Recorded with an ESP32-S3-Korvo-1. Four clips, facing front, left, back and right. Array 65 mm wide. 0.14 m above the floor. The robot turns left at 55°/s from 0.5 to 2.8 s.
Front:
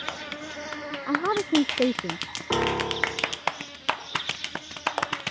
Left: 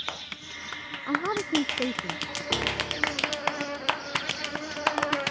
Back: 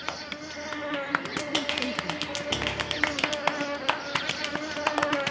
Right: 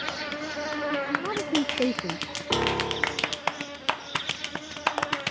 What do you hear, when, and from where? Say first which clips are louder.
0.0 s an insect: right 7 dB, front 1 dB; 80° right; by 5.3 s 155° left
1.1 s a woman speaking: even, front 6 dB; 20° left; by 2.2 s 40° right
2.5 s a piano: right 5 dB, front 9 dB; 25° right; by 3.4 s 40° right